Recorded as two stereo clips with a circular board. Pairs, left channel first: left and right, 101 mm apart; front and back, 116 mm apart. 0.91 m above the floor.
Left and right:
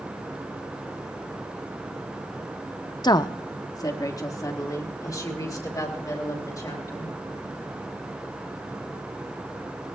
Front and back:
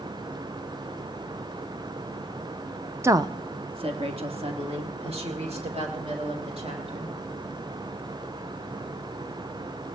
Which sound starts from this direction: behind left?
A woman speaking, at 3.0 s.